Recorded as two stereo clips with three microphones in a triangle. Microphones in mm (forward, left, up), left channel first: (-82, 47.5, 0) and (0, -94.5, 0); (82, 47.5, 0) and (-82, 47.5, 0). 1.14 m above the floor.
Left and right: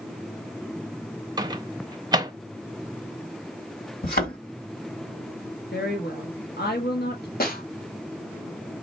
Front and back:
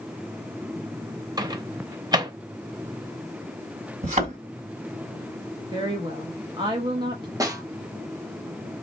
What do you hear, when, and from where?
1.4 s a microwave: 120° right, 0.6 m
4.0 s a thud: 140° left, 2 m
5.7 s a woman speaking: 115° left, 1.0 m
7.4 s a snare drum: 110° left, 1.2 m